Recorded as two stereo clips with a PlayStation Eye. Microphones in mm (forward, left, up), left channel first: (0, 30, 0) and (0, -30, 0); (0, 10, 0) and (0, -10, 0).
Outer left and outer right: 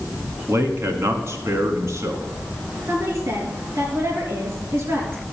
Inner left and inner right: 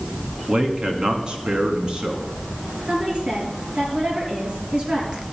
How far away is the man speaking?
About 1.7 m.